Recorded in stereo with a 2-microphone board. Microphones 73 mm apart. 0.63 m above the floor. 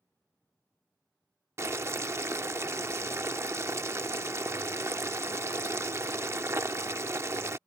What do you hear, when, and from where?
1.6 s boiling: 40° right (ahead or behind)